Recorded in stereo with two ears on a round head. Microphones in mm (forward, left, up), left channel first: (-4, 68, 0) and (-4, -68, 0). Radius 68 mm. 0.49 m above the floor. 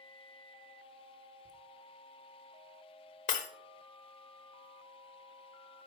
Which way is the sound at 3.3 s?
55° left (ahead or behind).